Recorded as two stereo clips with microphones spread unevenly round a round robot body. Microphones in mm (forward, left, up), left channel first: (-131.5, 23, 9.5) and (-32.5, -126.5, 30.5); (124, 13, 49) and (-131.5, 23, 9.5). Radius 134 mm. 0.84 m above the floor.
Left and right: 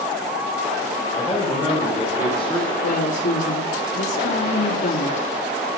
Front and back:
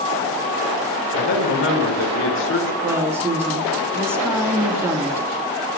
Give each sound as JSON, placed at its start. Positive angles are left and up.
{"t": 1.1, "sound": "a man speaking", "azimuth_deg": 40, "distance_m": 4.0}
{"t": 2.8, "sound": "a woman speaking", "azimuth_deg": 100, "distance_m": 1.5}